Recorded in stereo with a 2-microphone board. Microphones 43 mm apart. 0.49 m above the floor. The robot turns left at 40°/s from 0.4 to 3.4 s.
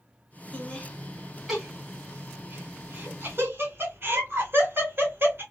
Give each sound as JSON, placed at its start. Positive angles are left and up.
{"t": 0.5, "sound": "laughter", "side_deg": 25, "distance_m": 1.8}